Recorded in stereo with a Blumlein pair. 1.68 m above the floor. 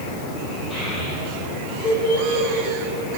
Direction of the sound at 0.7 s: 25° left.